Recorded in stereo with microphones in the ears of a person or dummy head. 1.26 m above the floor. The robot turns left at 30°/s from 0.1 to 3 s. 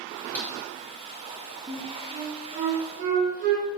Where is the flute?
10° right (ahead or behind), 3 m; by 3.7 s 45° right (ahead or behind), 3 m.